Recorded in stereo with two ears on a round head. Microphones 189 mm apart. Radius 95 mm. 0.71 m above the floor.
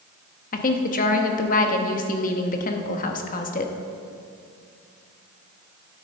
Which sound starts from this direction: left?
A woman speaking, at 0.5 s.